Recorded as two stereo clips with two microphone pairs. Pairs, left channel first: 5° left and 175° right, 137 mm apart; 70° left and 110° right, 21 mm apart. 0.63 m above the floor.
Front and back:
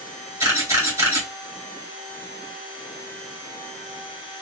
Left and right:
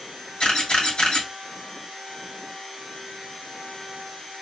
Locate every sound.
0.4 s a camera shutter: 115° left, 2.0 m